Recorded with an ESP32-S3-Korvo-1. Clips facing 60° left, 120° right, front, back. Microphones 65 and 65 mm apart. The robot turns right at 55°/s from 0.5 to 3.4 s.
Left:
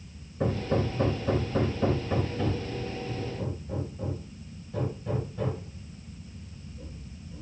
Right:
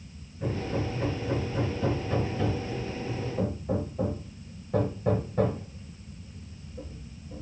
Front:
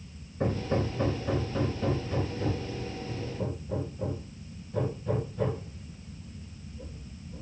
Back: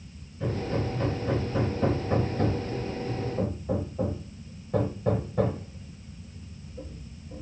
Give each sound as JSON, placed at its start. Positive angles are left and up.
{"t": 0.4, "sound": "hammering", "azimuth_deg": 45, "distance_m": 4.5}